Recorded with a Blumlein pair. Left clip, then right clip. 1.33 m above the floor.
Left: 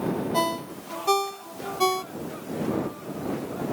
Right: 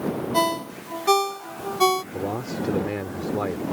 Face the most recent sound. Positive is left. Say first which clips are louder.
# right 5 dB
turn(degrees=-40)